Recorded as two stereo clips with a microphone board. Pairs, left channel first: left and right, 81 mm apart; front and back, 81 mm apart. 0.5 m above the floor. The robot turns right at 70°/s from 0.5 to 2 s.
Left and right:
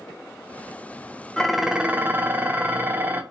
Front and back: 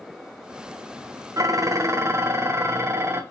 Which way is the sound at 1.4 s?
170° left.